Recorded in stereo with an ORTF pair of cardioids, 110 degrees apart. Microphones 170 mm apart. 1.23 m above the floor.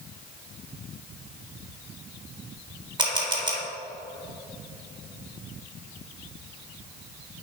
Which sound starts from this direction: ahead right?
A camera shutter, at 3.0 s.